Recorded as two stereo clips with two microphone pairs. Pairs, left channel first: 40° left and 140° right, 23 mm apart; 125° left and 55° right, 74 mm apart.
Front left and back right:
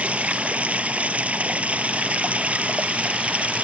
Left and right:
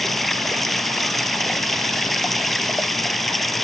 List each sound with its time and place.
0.0 s running water: 150° right